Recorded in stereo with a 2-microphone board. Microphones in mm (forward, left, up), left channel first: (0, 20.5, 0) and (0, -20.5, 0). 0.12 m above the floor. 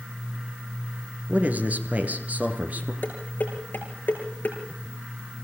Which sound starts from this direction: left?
Dishes clattering, at 3.0 s.